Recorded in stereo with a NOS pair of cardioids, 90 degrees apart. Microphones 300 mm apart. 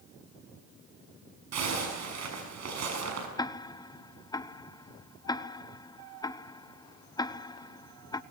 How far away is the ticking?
About 0.9 m.